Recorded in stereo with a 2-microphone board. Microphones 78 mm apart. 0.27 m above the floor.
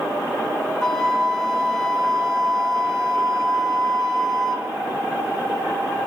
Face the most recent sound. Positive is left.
turn(degrees=10)  # may be behind; listen again after turning